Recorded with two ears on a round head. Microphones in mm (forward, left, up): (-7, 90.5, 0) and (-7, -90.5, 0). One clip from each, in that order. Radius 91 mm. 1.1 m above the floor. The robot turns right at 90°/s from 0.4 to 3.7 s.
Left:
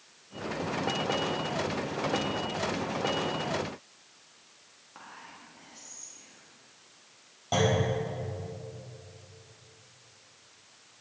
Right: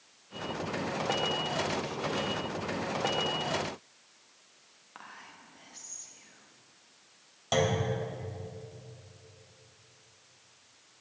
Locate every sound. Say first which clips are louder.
5.0 s whispering: left 1 dB; 45° right (ahead or behind), 1.6 m
7.5 s a clunk: left 2 dB; 50° right (ahead or behind), 3 m